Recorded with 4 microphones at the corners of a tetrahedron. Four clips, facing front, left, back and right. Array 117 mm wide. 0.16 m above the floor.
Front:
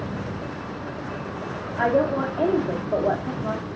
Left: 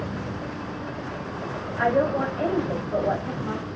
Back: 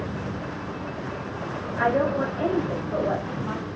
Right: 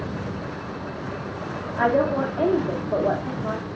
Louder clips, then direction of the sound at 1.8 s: Right 1 dB, front 2 dB; 60° right.